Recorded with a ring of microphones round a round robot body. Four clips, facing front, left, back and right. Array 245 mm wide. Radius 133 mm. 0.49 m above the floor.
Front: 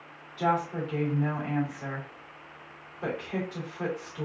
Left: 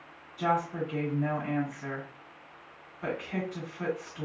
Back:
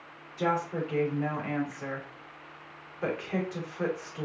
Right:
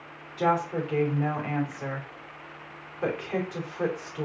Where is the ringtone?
No ringtone in this recording.